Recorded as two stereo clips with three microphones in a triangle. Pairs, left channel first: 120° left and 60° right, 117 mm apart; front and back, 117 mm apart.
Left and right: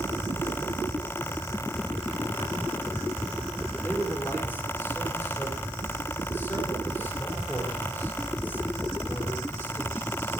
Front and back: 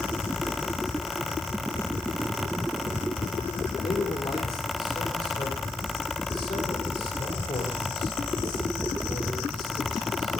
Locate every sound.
3.8 s a man speaking: 45° left, 5 m